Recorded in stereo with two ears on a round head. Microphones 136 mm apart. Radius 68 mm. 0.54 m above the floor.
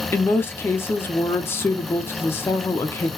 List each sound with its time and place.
0.1 s a woman speaking: 15° left (ahead or behind), 0.7 m